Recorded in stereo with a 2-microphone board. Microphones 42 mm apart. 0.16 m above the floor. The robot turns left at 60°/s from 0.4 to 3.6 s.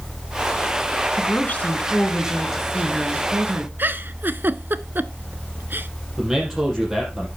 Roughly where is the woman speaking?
Left.